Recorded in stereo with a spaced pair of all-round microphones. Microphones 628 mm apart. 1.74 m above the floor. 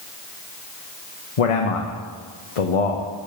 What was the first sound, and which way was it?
A man speaking, 65° left (ahead or behind).